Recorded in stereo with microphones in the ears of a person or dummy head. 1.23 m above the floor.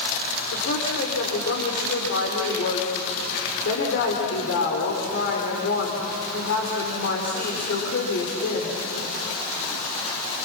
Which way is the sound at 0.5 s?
70° left (ahead or behind).